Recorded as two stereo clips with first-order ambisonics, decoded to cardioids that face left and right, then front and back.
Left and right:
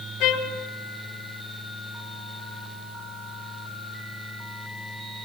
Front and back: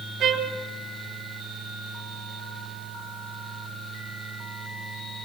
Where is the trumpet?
120° left, 3.5 m.